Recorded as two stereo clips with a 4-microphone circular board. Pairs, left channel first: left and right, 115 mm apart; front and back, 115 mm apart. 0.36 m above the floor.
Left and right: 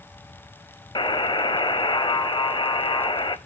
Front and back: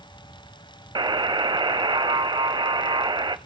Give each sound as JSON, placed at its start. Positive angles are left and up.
{"t": 0.9, "sound": "a buzzer", "azimuth_deg": 135, "distance_m": 0.6}